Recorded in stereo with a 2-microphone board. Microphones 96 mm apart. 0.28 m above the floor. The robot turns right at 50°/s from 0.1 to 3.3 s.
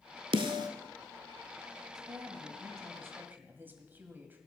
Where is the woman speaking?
100° right, 1.5 m; by 4.4 s 30° right, 1.5 m.